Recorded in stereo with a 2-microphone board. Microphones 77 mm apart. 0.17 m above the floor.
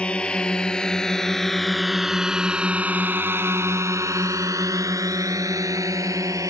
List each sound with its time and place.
0.0 s a drone: 15° left (ahead or behind); by 6.5 s 45° right (ahead or behind)